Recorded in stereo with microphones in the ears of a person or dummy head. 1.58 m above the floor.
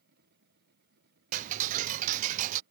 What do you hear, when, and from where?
0.0 s a machine running: 60° right (ahead or behind)
1.3 s ticking: 45° right (ahead or behind)